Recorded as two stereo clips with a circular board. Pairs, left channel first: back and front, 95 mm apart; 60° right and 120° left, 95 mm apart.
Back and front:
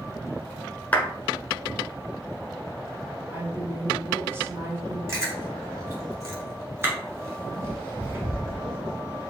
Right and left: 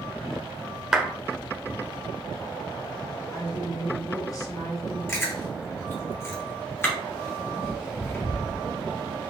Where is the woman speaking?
50° right, 1.3 m.